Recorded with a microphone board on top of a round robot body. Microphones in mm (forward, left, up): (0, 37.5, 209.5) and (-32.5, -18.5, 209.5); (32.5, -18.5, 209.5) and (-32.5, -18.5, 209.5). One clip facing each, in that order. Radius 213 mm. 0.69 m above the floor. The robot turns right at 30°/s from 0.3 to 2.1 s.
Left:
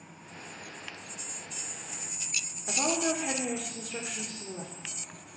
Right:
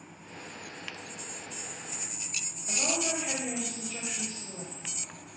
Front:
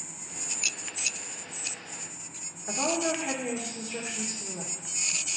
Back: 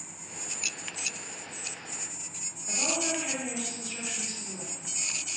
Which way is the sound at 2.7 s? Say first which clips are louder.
Left 3 dB, front 4 dB; 60° left.